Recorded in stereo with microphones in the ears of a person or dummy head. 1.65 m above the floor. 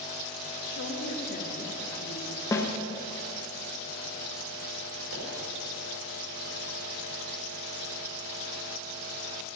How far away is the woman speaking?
About 2 m.